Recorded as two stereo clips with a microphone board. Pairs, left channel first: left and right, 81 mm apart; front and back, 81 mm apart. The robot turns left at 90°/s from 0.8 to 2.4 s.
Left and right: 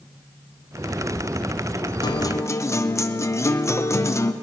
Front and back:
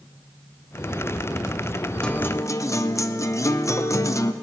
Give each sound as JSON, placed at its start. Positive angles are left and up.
{"t": 2.0, "sound": "a guitar", "azimuth_deg": 75, "distance_m": 0.6}